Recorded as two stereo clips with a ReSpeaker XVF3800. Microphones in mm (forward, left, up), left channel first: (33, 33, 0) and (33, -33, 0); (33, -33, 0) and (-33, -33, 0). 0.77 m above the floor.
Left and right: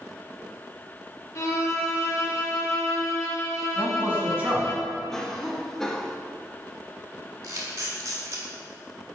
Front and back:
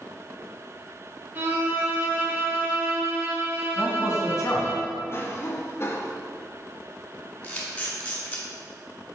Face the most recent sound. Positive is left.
turn(degrees=-65)